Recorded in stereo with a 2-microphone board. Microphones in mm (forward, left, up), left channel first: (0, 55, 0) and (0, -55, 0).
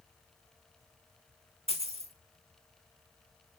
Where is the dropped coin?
65° right (ahead or behind), 2.5 m.